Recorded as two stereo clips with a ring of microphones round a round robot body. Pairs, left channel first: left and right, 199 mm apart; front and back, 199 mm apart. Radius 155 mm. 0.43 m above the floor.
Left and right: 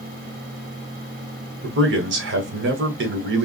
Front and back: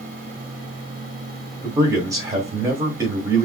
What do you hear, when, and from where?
1.6 s a man speaking: 105° right, 1.7 m